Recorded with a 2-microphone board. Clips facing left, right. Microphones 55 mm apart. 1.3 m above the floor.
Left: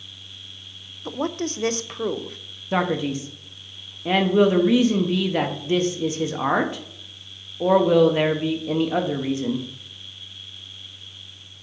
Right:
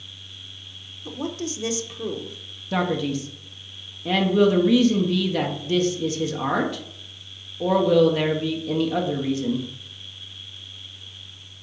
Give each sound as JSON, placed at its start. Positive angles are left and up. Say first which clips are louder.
{"t": 1.1, "sound": "a woman speaking", "louder": "left 3 dB", "side_deg": 50, "distance_m": 0.5}
{"t": 2.7, "sound": "a man speaking", "louder": "left 1 dB", "side_deg": 25, "distance_m": 0.9}